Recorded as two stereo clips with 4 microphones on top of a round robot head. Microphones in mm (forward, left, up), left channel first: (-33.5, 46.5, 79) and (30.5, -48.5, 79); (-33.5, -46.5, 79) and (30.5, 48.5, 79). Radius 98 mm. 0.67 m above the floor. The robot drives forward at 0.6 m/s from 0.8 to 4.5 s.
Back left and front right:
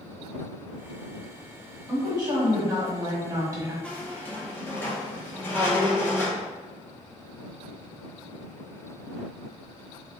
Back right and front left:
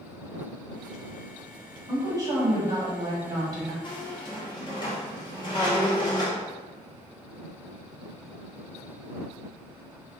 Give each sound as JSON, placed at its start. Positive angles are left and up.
{"t": 1.9, "sound": "a woman speaking", "azimuth_deg": 0, "distance_m": 2.0}
{"t": 3.8, "sound": "a squeak", "azimuth_deg": -155, "distance_m": 0.8}